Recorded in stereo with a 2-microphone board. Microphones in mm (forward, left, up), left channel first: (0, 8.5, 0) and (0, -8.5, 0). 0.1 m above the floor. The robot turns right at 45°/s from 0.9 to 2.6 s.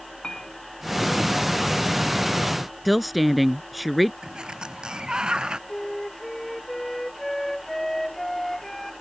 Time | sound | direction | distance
0.2 | a clink | 75° left (ahead or behind) | ?
2.9 | a woman speaking | centre (ahead or behind) | ?
4.2 | a sliding door | 75° right (ahead or behind) | ?
5.7 | a flute | 30° left (ahead or behind) | ?